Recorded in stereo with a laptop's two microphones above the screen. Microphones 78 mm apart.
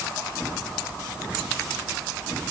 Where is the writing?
I don't hear writing.